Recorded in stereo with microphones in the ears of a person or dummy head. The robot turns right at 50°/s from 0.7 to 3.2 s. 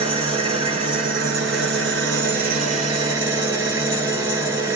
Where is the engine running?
145° right, 1.4 m; by 4.8 s 20° right, 1.4 m.